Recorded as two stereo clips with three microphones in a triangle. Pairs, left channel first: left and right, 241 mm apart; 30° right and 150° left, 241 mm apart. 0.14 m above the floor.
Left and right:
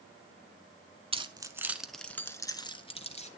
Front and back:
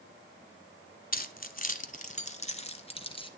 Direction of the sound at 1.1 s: 40° right.